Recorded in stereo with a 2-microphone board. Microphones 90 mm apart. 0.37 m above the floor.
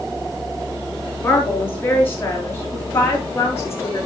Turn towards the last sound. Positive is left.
turn(degrees=30)  # may be behind; listen again after turning